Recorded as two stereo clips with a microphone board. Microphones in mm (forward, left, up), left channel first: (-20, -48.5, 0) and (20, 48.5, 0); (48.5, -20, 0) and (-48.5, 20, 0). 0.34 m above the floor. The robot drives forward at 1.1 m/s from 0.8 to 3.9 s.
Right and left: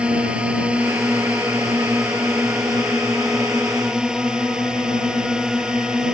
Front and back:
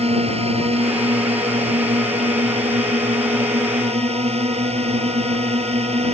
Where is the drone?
145° left; by 6.1 s 150° left.